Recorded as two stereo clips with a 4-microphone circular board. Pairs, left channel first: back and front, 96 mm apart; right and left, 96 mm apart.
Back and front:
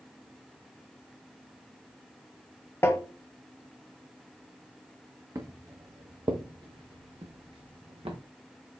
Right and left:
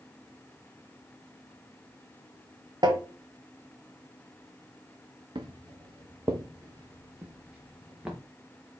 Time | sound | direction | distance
2.8 | tapping | 120° left | 1.1 m
5.3 | footsteps | 55° left | 1.5 m